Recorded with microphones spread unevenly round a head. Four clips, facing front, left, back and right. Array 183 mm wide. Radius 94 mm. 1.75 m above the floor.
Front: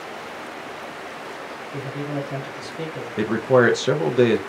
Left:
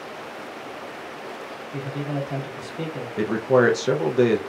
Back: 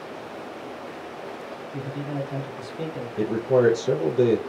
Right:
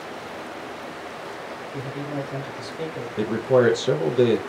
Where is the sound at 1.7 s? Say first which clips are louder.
Left 2 dB, front 2 dB; 65° left, 1.3 m.